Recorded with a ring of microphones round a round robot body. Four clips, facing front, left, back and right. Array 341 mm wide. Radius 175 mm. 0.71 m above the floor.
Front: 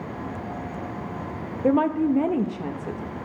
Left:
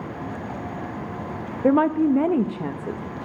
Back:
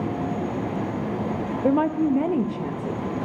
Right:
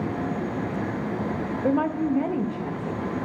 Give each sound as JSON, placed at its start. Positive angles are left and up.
{"t": 1.6, "sound": "a woman speaking", "azimuth_deg": 100, "distance_m": 0.5}